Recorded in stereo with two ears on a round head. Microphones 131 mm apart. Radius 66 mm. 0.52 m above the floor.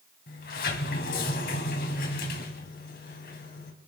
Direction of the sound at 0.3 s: 75° left (ahead or behind).